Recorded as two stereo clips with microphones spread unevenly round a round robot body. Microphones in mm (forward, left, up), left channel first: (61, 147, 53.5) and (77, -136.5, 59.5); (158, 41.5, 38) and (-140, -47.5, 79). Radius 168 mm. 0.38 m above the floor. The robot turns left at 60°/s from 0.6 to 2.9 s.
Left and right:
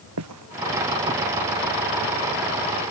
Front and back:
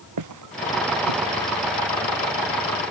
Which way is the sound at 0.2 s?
130° right.